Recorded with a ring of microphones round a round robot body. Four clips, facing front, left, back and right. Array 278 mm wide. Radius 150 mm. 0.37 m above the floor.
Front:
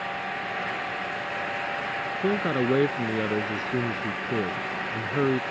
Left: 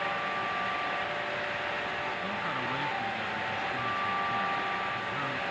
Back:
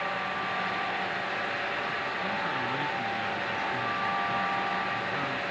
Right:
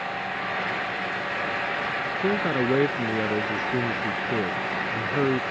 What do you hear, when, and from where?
2.2 s a man speaking: 45° right